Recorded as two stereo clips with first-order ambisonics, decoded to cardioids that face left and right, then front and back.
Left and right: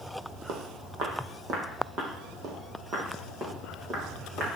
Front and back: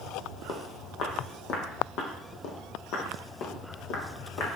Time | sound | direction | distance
0.5 | footsteps | 55° right | 2.5 m